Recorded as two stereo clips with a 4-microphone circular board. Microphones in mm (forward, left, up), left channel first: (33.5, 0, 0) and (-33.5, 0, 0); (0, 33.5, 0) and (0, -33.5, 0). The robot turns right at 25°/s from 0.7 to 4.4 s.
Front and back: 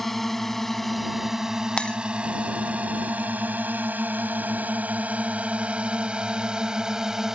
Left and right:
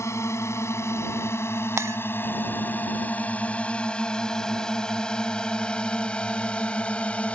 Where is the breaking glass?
70° right; by 2.0 s 65° right.